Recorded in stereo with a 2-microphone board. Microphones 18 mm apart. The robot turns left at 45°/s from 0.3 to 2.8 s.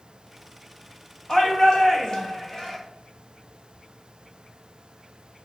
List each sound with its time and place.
1.3 s a shout: 85° left, 1.1 m; by 2.8 s 20° left, 1.1 m